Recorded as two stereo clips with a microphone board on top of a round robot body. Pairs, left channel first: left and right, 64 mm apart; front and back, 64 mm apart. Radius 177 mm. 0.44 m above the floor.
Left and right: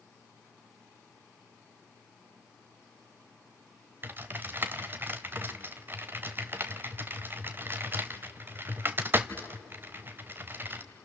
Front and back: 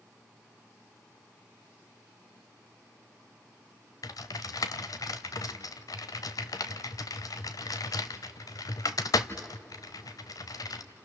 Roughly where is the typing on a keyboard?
Ahead right.